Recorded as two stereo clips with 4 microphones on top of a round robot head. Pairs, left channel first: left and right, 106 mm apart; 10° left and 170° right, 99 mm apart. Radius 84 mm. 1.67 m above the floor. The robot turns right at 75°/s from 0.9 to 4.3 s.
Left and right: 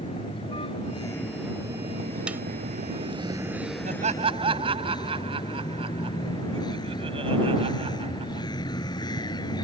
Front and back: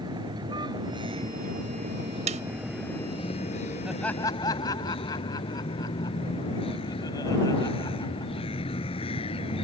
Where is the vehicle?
145° left; by 9.6 s 40° left.